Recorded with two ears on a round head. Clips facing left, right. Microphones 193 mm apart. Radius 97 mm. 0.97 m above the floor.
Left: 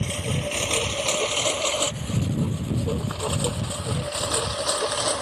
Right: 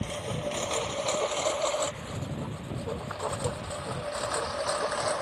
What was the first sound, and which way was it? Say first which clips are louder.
A lawn mower: left 4 dB; 35° left (ahead or behind).